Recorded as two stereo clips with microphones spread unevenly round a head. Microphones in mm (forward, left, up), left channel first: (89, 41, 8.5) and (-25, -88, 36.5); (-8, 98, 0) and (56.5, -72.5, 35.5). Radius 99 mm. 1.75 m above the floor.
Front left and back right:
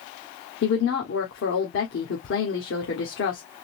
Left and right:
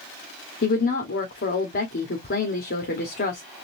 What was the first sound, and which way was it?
A woman speaking, 75° left.